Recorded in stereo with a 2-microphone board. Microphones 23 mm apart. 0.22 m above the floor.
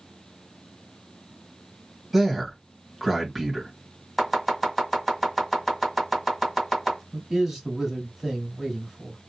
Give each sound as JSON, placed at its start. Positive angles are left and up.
{"t": 2.1, "sound": "a man speaking", "side_deg": -15, "distance_m": 1.3}
{"t": 4.2, "sound": "chopping", "side_deg": 10, "distance_m": 1.7}
{"t": 7.1, "sound": "a man speaking", "side_deg": -15, "distance_m": 1.4}